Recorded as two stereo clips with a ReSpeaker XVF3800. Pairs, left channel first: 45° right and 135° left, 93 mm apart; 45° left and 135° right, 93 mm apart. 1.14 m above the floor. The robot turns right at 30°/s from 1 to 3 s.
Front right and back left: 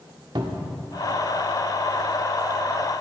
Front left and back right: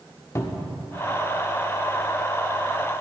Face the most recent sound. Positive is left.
turn(degrees=160)